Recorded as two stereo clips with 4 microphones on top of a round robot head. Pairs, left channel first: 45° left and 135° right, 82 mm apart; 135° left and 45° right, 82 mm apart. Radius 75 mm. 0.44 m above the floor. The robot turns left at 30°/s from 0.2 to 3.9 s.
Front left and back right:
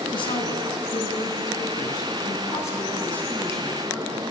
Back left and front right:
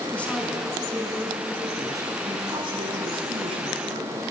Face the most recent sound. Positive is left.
turn(degrees=-50)